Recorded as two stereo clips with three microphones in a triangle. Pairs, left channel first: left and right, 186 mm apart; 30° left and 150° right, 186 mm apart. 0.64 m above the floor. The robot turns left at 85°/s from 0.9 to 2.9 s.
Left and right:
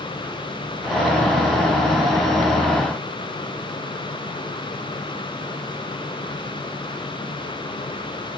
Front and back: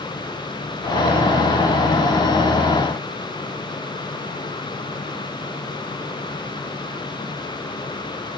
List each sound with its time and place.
Only background noise.